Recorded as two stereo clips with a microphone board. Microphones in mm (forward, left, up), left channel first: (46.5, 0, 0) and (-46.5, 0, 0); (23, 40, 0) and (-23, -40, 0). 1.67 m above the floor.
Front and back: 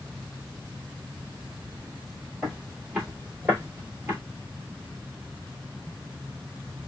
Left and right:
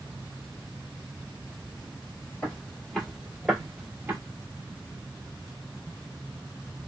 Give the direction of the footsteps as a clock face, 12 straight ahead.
8 o'clock.